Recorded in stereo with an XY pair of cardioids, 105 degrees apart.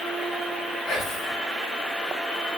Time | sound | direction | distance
0.9 | whispering | 60° left | 2.5 m